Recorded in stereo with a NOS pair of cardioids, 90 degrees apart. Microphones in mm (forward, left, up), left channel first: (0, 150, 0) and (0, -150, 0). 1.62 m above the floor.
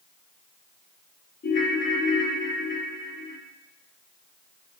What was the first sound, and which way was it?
A ringtone, 40° left.